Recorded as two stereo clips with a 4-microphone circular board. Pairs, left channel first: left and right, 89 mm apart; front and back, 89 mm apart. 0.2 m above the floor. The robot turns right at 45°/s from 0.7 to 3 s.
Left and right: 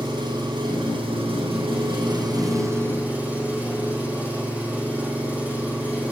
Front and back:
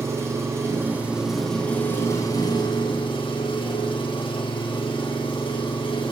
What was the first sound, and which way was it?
An engine running, 120° right.